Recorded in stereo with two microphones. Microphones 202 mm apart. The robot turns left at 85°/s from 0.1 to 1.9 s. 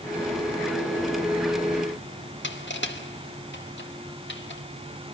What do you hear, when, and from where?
2.4 s crushing: 65° left (ahead or behind), 2 m